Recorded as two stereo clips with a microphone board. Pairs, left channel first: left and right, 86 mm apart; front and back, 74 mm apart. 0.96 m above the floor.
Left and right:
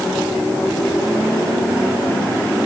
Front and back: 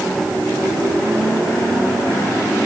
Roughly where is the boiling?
No boiling in this recording.